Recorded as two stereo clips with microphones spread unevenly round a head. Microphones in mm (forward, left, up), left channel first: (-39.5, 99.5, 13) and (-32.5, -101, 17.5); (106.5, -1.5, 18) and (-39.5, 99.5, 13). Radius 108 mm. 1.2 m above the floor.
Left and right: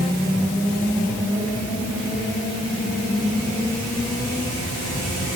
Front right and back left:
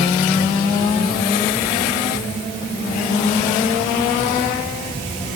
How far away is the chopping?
No chopping in this recording.